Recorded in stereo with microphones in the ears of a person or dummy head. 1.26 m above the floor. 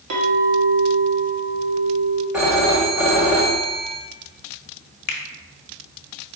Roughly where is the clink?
Right.